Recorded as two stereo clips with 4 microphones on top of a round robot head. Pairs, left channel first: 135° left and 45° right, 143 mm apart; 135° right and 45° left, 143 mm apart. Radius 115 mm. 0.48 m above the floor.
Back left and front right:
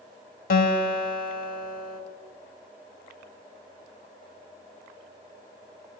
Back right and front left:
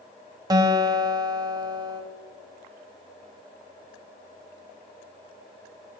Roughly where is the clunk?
No clunk in this recording.